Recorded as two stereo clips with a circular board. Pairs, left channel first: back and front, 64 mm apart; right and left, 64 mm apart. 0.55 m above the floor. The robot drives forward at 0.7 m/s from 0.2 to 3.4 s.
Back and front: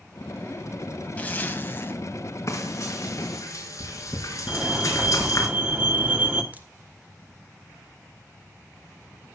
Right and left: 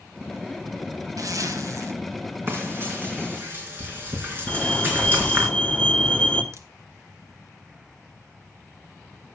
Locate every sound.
1.2 s a zipper: 115° left, 1.8 m; by 1.9 s 125° left, 2 m
2.5 s frying: 140° left, 4 m; by 5.5 s 145° left, 4.5 m
4.5 s a fire alarm: 40° right, 2 m
6.5 s a crack: 60° left, 1.5 m